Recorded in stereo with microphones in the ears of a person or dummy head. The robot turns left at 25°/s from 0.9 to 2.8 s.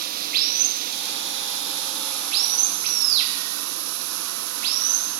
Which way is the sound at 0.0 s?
55° right.